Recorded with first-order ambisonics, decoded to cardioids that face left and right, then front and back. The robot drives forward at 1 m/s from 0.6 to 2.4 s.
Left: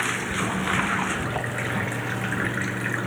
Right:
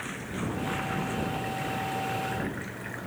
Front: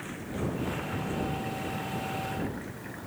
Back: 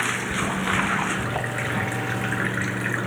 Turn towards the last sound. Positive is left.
turn(degrees=145)